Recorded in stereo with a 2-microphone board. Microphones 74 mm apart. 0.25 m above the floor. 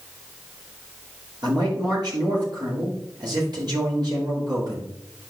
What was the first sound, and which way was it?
A man speaking, 65° right (ahead or behind).